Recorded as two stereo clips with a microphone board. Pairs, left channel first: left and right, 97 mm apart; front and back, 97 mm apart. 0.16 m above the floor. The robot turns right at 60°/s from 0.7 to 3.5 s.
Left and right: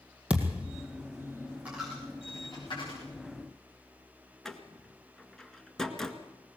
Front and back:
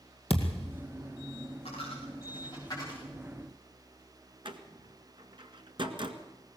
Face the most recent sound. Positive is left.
turn(degrees=175)